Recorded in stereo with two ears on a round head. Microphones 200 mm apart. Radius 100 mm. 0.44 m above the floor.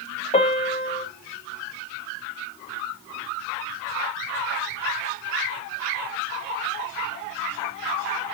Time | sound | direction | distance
0.3 | a piano | 30° left (ahead or behind) | 1.2 m